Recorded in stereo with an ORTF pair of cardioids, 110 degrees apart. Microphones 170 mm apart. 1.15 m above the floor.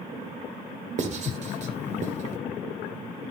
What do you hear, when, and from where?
1.0 s writing: 45° right, 1.9 m